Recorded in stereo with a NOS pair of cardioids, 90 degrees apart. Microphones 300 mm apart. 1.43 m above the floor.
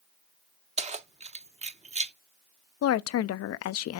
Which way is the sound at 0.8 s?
25° right.